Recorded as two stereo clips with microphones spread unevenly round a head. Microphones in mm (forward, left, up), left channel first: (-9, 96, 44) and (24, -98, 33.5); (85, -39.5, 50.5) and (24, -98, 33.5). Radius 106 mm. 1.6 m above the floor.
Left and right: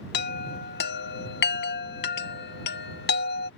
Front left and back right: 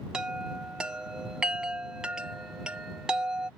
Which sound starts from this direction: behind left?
A chime, at 0.1 s.